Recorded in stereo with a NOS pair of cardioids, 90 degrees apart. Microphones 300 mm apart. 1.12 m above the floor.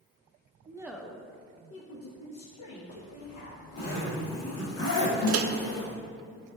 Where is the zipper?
55° left, 1.9 m.